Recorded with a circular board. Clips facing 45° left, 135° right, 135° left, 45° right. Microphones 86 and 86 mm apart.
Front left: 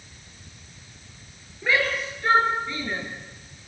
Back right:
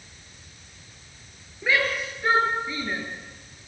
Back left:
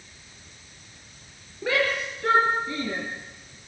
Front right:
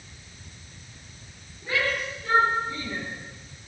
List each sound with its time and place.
1.6 s a shout: 140° left, 6.5 m; by 3.0 s 145° left, 6.5 m